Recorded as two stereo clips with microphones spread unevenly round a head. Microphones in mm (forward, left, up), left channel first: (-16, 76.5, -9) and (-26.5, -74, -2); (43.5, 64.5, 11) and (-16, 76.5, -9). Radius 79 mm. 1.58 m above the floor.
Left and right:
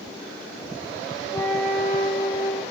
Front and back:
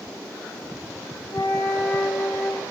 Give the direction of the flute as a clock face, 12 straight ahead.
11 o'clock.